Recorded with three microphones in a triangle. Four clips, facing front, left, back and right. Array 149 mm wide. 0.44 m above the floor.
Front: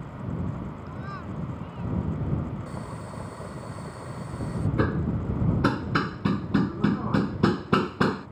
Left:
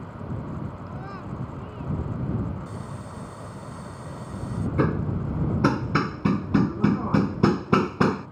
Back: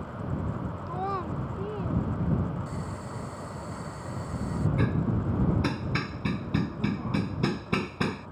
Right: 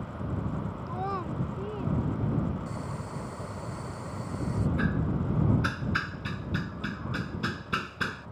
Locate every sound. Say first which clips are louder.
0.9 s a child speaking: right 4 dB, back 6 dB; 145° right; by 2.0 s 150° right
2.7 s boiling: even, even; 15° right
4.8 s hammering: left 5 dB, front 4 dB; 65° left